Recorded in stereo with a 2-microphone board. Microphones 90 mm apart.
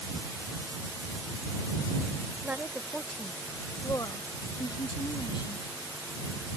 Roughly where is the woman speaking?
Centre.